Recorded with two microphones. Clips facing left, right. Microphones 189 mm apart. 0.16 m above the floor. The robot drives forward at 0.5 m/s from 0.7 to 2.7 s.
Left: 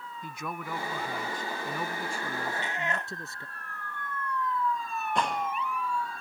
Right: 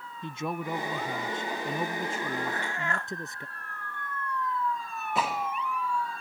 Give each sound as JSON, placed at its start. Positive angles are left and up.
{"t": 0.2, "sound": "a man speaking", "side_deg": -25}
{"t": 2.5, "sound": "a cat meowing", "side_deg": 20}
{"t": 5.2, "sound": "a gunshot", "side_deg": -5}